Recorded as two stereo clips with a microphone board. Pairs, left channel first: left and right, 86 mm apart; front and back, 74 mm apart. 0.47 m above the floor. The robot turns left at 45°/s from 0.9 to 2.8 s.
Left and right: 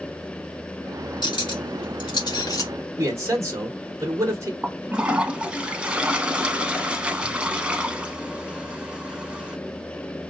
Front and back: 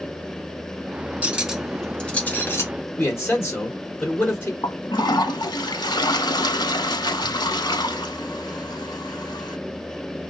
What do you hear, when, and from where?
1.2 s cutlery clinking: 110° left, 1.1 m; by 2.7 s 45° left, 1.1 m
3.0 s a man speaking: 45° right, 2 m
4.6 s a toilet flushing: 15° right, 0.8 m